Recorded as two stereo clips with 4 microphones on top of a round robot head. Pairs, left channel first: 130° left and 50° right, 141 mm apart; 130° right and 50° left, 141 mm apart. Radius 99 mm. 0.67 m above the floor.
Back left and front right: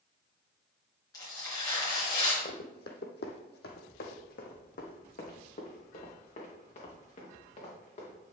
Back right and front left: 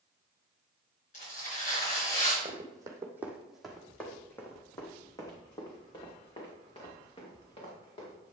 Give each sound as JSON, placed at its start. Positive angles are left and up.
{"t": 1.1, "sound": "tearing paper", "azimuth_deg": -165, "distance_m": 4.0}
{"t": 2.5, "sound": "running footsteps", "azimuth_deg": 100, "distance_m": 1.3}